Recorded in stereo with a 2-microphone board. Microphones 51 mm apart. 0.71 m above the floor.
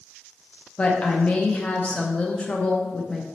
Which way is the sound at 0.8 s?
25° left (ahead or behind).